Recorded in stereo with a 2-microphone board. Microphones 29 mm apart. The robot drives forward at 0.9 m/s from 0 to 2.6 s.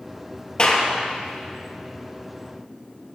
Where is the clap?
35° left (ahead or behind), 2.5 m; by 0.9 s 30° left (ahead or behind), 2.5 m.